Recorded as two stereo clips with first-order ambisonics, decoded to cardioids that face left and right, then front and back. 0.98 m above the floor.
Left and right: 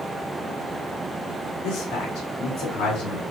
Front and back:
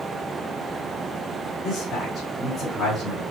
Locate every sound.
1.6 s a man speaking: 85° left, 2.5 m